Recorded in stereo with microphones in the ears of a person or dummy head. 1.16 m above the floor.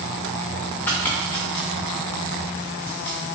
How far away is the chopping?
About 0.6 m.